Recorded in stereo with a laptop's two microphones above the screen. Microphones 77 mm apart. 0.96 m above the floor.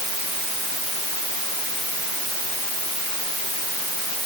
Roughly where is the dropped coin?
No dropped coin in this recording.